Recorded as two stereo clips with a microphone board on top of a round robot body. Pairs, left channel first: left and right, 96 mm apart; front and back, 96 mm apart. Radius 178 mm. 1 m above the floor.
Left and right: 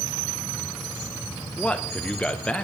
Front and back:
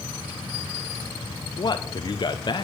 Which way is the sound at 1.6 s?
15° left.